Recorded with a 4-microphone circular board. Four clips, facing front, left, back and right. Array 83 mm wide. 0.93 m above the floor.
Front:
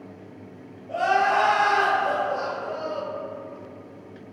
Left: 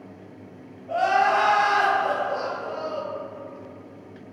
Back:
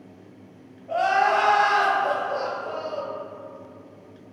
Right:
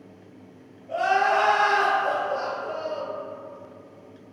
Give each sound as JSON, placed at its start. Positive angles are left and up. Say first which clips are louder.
{"t": 0.9, "sound": "crying", "louder": "left 1 dB, back 1 dB", "azimuth_deg": 140, "distance_m": 1.3}